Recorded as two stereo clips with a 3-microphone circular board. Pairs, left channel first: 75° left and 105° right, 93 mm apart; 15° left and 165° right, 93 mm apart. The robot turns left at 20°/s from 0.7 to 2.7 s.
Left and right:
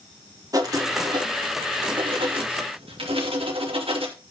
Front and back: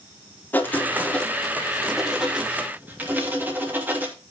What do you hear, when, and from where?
0.5 s writing: 55° right, 2.5 m; by 4.1 s 95° right, 2.5 m